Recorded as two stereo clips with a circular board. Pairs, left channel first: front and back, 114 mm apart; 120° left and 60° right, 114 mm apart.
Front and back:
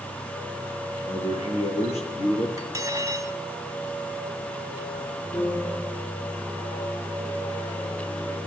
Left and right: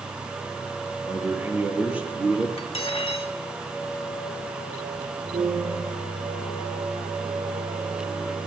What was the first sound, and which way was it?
A man speaking, 10° left.